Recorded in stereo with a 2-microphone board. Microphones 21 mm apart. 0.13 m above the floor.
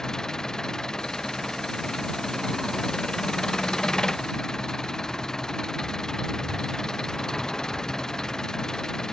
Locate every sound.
0.0 s an engine running: 30° left (ahead or behind)